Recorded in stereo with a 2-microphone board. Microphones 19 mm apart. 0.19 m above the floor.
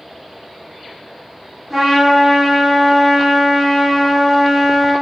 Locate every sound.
1.7 s a trumpet: 20° right (ahead or behind), 1.1 m